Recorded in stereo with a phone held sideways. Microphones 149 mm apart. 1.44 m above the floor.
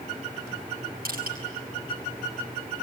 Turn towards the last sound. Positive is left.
turn(degrees=-85)